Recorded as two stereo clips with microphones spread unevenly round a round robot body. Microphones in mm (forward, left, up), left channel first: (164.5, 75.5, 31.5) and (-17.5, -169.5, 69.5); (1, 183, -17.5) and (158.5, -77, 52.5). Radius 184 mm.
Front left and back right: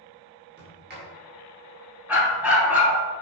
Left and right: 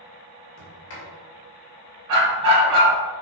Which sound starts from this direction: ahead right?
A dog barking, at 2.1 s.